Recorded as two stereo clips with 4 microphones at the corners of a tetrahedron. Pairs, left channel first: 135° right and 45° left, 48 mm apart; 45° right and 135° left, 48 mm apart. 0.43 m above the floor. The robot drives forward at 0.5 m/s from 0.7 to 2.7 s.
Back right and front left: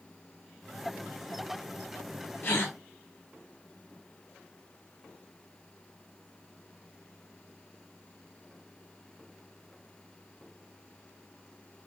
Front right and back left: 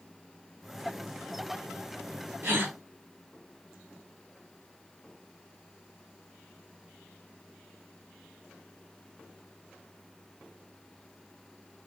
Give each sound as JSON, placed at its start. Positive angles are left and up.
{"t": 2.4, "sound": "a gasp", "azimuth_deg": 180, "distance_m": 2.5}